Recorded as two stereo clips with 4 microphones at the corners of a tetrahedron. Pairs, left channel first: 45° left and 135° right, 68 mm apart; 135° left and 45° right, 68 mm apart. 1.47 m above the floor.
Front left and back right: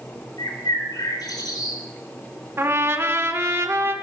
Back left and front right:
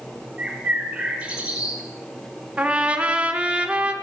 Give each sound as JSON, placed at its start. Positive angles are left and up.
{"t": 0.4, "sound": "a bird", "azimuth_deg": 30, "distance_m": 4.0}
{"t": 2.6, "sound": "a trumpet", "azimuth_deg": -110, "distance_m": 1.4}